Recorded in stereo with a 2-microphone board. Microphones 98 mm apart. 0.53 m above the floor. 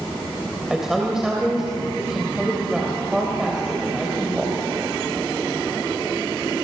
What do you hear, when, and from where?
0.7 s a woman speaking: 5° right (ahead or behind), 3 m